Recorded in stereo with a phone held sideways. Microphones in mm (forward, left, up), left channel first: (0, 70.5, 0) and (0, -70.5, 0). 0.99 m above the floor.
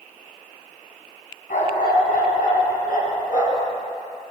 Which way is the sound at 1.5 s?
80° left.